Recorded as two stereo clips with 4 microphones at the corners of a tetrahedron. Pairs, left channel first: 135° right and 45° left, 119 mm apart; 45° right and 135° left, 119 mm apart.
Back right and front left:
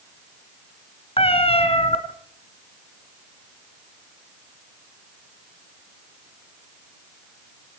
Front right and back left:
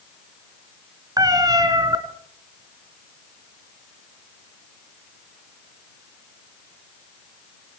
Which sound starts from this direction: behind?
A cat meowing, at 1.2 s.